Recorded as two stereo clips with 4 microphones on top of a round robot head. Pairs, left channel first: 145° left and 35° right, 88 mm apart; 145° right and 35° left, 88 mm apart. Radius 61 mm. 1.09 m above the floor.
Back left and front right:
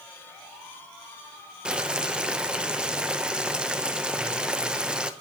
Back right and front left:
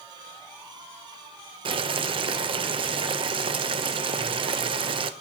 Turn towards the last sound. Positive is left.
turn(degrees=45)